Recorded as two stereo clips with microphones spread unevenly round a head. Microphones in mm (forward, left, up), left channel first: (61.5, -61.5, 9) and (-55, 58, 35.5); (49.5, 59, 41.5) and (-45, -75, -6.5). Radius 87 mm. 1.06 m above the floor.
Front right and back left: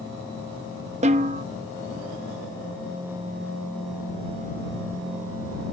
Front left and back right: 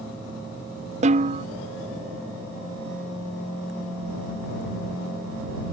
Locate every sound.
1.0 s a snare drum: 170° right